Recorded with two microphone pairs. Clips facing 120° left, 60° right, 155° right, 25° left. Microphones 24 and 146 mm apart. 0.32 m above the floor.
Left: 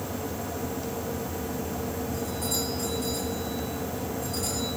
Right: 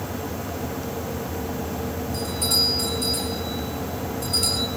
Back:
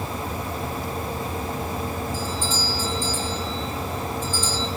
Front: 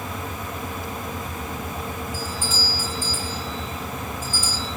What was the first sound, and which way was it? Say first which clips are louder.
A doorbell: right 11 dB, back 2 dB; 55° right.